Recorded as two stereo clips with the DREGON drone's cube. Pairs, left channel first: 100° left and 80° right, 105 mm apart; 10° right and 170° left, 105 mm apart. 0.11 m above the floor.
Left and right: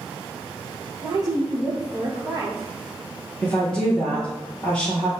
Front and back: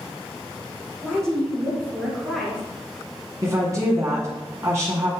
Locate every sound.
1.0 s a woman speaking: 95° right, 1.4 m
3.4 s a woman speaking: 170° left, 1.2 m